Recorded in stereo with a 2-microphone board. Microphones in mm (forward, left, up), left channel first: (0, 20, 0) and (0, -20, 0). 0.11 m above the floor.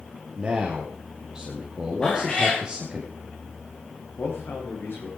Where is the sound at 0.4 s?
20° right (ahead or behind), 4 m.